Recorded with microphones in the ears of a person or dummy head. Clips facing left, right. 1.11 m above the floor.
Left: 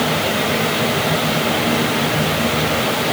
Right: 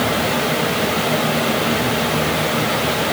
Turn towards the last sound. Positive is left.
No sound to turn to.